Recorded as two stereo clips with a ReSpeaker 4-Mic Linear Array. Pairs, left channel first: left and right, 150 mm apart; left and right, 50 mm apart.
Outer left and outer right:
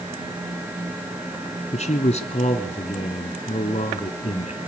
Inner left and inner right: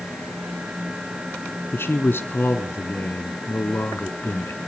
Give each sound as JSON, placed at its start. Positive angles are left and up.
{"t": 1.7, "sound": "a man speaking", "side_deg": 50, "distance_m": 2.5}